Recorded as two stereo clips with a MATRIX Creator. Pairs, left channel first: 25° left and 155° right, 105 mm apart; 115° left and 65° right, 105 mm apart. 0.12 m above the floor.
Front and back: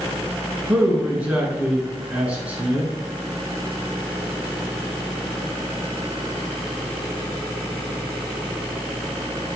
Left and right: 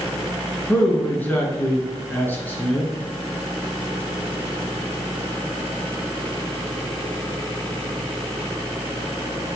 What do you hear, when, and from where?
0.7 s a man speaking: 150° left, 1.1 m